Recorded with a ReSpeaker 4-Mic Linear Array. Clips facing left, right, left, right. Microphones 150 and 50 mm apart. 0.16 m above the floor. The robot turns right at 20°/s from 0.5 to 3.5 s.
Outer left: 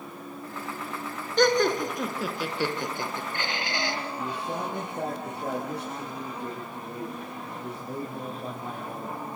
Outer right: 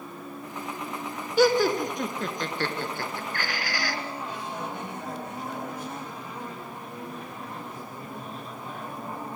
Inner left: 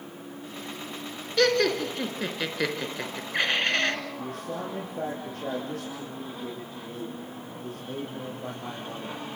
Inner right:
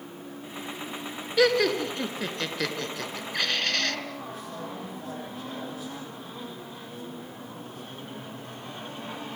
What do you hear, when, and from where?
1.4 s laughter: 5° right (ahead or behind), 2 m; by 4.0 s 25° left (ahead or behind), 2 m
4.2 s a man speaking: 80° left, 6.5 m